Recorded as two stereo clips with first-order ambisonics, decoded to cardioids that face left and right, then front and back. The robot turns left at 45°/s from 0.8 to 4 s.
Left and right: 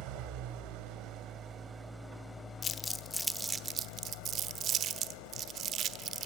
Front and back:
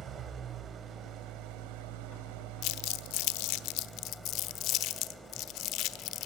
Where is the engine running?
120° right, 2 m; by 6.3 s 95° left, 2 m.